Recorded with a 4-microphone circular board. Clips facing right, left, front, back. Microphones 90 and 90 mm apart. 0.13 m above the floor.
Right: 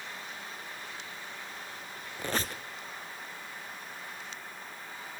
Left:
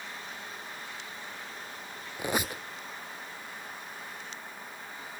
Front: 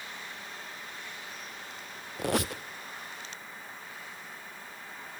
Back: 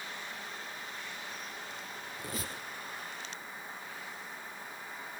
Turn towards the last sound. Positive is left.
turn(degrees=10)